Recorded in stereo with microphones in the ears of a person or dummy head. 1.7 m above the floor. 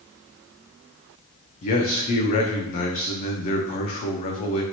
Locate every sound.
1.6 s a man speaking: 40° left (ahead or behind), 0.5 m